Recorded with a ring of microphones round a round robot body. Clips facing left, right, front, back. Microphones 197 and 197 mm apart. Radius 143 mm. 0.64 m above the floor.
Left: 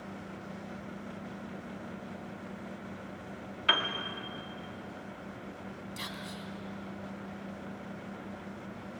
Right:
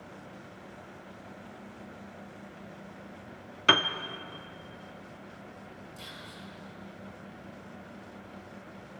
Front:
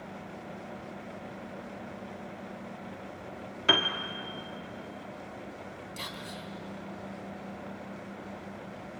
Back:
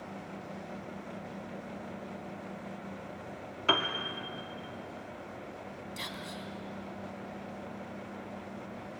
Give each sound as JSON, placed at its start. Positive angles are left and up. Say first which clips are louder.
{"t": 3.7, "sound": "a piano", "louder": "right 7 dB, front 2 dB", "azimuth_deg": -80, "distance_m": 1.2}
{"t": 6.0, "sound": "whispering", "louder": "left 4 dB, even", "azimuth_deg": 95, "distance_m": 4.5}